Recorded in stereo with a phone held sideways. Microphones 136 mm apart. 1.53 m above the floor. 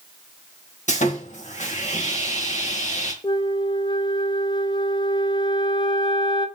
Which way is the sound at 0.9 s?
60° left (ahead or behind).